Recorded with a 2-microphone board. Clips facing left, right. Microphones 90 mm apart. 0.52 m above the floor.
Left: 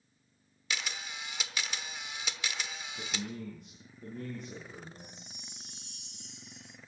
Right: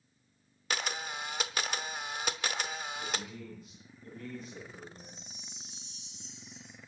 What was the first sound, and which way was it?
A camera shutter, 50° right (ahead or behind).